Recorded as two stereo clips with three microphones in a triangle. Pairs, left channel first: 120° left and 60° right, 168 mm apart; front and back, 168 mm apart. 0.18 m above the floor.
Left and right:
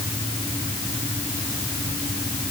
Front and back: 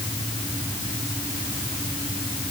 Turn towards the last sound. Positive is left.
No sound to turn to.